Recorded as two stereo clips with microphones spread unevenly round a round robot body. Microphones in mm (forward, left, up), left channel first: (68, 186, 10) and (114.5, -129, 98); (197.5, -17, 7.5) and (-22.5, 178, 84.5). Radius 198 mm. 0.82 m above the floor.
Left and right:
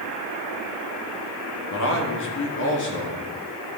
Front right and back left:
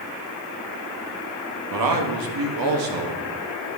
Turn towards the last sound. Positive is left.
turn(degrees=140)